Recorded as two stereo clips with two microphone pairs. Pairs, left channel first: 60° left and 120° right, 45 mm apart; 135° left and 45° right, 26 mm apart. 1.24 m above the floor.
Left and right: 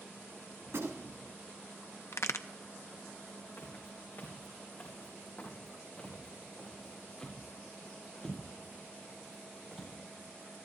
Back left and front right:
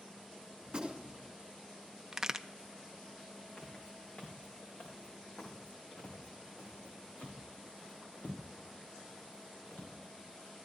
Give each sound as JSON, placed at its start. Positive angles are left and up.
{"t": 0.7, "sound": "a gunshot", "azimuth_deg": -105, "distance_m": 3.0}
{"t": 2.1, "sound": "a crack", "azimuth_deg": 30, "distance_m": 0.6}
{"t": 3.6, "sound": "footsteps", "azimuth_deg": 95, "distance_m": 3.5}